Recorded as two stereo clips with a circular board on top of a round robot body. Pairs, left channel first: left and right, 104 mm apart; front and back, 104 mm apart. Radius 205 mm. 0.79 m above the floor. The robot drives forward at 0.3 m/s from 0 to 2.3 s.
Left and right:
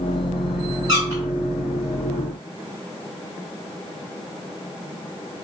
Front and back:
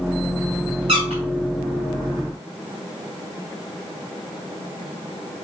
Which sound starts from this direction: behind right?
A squeak, at 0.9 s.